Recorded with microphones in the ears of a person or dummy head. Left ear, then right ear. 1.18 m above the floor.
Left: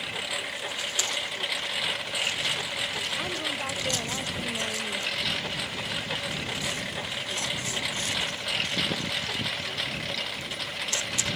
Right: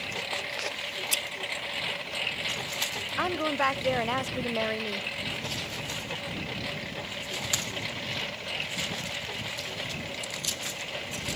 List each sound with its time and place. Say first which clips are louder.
0.0 s a lawn mower: left 1 dB; 15° left (ahead or behind); by 11.4 s 30° left (ahead or behind)
1.1 s scissors: right 1 dB; 60° right (ahead or behind)
3.2 s a woman speaking: right 3 dB; 65° right (ahead or behind)